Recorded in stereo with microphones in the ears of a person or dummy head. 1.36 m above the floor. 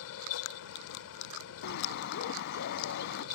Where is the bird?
65° left (ahead or behind).